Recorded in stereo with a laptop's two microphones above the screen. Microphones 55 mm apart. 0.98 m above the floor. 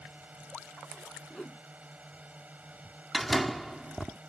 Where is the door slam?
Centre (ahead or behind).